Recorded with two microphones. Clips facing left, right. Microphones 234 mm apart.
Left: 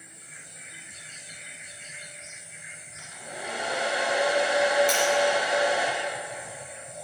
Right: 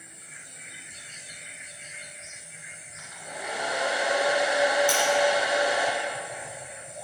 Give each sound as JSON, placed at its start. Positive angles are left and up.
{"t": 3.0, "sound": "a hair dryer", "side_deg": 35, "distance_m": 2.0}
{"t": 4.9, "sound": "breaking glass", "side_deg": -55, "distance_m": 2.0}